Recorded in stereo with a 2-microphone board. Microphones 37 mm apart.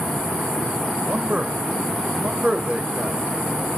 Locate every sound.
1.0 s a man speaking: 35° right (ahead or behind), 1.1 m